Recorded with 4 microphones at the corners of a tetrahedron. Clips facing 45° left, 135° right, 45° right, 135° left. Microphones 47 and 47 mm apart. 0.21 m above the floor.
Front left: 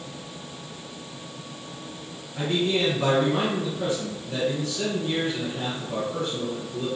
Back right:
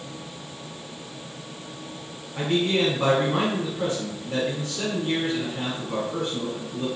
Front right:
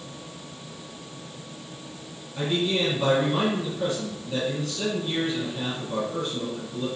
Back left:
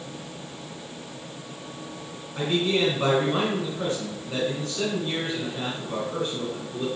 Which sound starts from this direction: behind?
A man speaking, at 2.4 s.